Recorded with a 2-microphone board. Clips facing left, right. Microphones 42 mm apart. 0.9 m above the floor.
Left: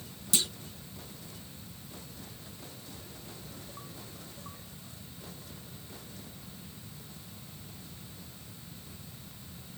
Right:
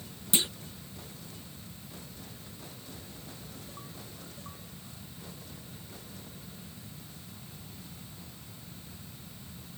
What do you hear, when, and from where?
0.3 s a clunk: 25° right (ahead or behind), 0.7 m